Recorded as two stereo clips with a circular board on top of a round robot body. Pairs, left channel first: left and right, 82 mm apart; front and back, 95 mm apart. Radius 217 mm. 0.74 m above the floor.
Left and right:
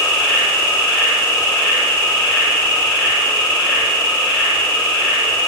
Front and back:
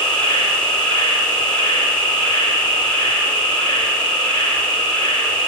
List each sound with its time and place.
0.0 s an insect: 30° left, 1.0 m